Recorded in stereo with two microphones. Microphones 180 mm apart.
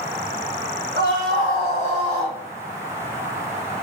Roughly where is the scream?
Right.